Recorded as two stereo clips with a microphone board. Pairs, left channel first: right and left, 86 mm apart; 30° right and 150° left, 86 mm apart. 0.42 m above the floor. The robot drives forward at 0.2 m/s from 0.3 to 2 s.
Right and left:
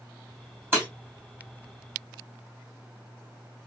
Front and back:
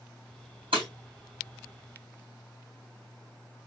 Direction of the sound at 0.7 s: 155° left.